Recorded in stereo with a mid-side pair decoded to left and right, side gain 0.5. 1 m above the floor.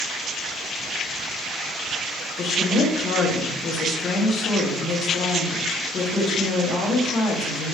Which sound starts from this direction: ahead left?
A woman speaking, at 2.4 s.